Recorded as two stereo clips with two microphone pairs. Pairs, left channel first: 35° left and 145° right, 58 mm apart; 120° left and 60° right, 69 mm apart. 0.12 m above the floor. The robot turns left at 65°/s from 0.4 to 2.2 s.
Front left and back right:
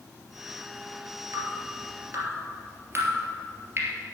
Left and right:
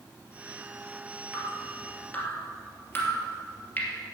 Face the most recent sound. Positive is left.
turn(degrees=170)